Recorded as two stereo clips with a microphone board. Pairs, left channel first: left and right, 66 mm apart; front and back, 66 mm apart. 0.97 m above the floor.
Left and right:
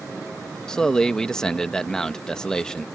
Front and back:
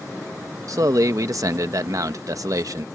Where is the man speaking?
170° left.